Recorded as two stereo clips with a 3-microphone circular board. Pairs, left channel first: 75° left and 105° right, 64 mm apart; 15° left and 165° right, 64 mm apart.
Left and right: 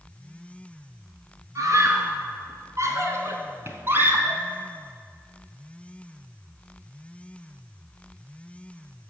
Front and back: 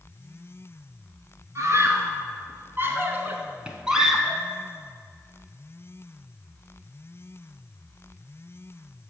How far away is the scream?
About 3 m.